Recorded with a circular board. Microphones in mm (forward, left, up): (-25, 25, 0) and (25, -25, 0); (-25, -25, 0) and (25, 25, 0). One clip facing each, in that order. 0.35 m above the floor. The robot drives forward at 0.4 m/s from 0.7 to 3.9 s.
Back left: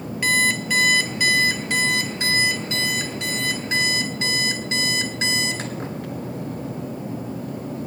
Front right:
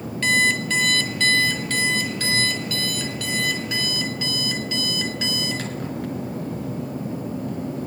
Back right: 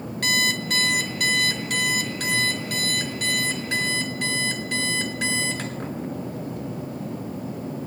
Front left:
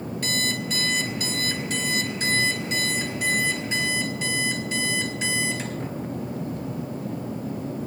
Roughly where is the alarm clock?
Behind right.